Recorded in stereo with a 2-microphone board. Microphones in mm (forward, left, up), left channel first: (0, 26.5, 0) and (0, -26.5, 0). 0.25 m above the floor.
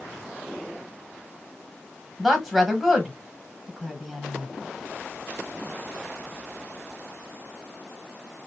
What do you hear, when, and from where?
2.2 s a woman speaking: 5° right (ahead or behind), 1.1 m